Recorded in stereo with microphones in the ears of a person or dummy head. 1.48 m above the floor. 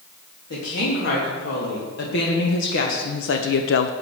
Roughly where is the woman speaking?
Left.